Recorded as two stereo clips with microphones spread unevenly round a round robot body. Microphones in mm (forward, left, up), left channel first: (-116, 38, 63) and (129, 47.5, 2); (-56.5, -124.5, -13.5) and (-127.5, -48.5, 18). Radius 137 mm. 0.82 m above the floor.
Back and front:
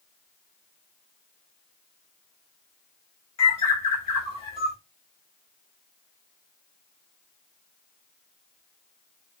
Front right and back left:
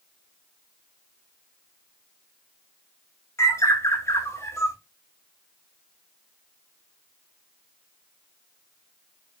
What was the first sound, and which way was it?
A bird, 110° right.